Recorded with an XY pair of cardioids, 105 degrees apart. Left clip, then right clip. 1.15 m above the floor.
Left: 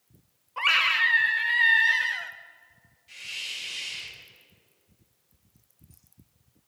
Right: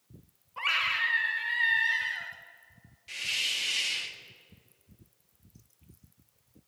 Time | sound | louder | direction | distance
0.6 | a scream | left 6 dB | 35° left | 1.1 m
3.1 | a hiss | right 5 dB | 65° right | 1.1 m